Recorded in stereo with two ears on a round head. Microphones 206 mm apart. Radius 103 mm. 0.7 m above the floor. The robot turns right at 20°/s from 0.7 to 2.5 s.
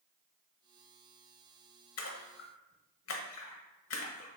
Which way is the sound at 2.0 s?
75° left (ahead or behind).